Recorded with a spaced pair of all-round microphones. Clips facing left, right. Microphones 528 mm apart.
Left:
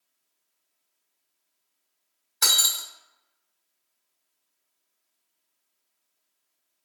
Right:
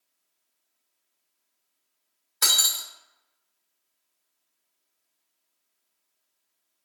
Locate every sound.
2.4 s breaking glass: 5° left (ahead or behind), 0.8 m